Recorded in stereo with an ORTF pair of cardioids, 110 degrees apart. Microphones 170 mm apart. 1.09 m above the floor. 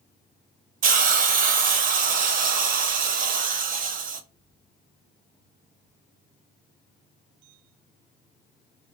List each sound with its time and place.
0.8 s a hiss: 55° right, 0.7 m